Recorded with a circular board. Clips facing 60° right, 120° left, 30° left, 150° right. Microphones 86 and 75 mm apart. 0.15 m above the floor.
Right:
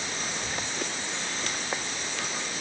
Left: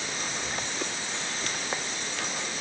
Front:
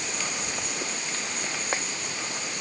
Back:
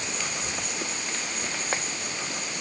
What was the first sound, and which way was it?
Only background noise.